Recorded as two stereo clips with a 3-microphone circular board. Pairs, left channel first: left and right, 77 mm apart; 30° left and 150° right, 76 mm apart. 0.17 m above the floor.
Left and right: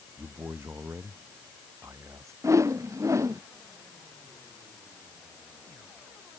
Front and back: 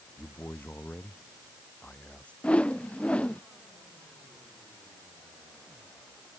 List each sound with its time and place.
0.2 s a man speaking: 35° right; by 2.3 s 45° right
2.4 s a whoosh: 45° right